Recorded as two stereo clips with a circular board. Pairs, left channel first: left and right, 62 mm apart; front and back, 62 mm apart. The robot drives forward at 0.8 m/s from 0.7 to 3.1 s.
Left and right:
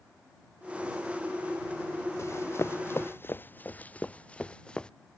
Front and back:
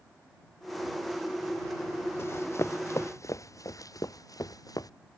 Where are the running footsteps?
45° left; by 4.9 s 15° left.